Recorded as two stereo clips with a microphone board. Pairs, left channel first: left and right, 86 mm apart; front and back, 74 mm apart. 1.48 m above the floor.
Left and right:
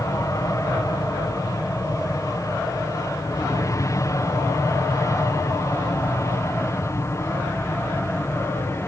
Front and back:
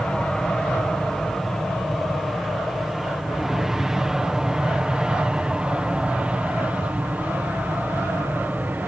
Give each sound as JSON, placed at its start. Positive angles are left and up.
{"t": 0.0, "sound": "an aircraft", "azimuth_deg": 75}